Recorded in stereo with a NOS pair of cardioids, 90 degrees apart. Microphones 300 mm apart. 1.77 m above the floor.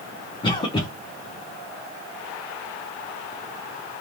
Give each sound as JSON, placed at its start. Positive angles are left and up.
{"t": 0.4, "sound": "a cough", "azimuth_deg": 15, "distance_m": 0.9}